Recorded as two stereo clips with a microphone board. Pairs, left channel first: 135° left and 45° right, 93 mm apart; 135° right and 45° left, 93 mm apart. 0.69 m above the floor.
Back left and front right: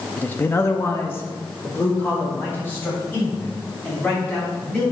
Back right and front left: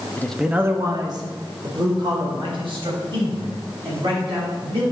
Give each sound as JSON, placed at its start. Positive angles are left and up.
{"t": 0.2, "sound": "a man speaking", "azimuth_deg": -175, "distance_m": 0.7}